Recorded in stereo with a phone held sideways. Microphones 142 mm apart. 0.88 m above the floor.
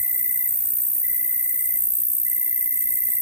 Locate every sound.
0.0 s an insect: 20° right (ahead or behind), 0.7 m